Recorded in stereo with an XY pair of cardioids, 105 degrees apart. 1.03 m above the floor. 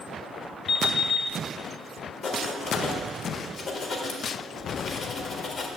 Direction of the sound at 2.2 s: 55° left.